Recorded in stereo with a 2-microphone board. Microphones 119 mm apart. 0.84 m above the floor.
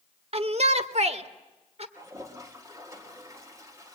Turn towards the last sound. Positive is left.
turn(degrees=-25)  # may be behind; listen again after turning